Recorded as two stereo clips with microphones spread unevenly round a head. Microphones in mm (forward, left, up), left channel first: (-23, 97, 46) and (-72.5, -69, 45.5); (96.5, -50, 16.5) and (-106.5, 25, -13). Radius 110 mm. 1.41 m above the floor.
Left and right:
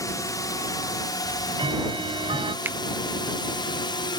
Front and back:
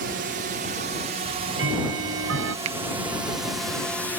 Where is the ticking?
170° right.